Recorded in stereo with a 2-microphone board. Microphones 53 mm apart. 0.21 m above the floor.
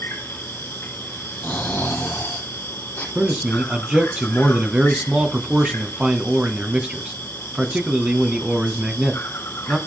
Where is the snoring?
35° left (ahead or behind), 4.5 m.